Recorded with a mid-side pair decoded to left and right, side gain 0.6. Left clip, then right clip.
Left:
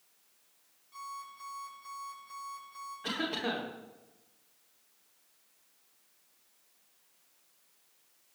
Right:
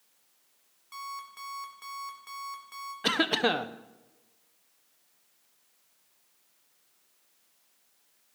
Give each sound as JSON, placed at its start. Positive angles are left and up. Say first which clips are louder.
{"t": 0.9, "sound": "an alarm clock", "louder": "right 4 dB", "azimuth_deg": -65, "distance_m": 2.5}
{"t": 3.0, "sound": "a cough", "louder": "right 9 dB", "azimuth_deg": -55, "distance_m": 1.1}